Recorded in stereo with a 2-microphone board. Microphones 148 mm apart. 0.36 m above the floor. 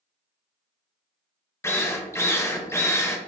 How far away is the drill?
About 0.6 m.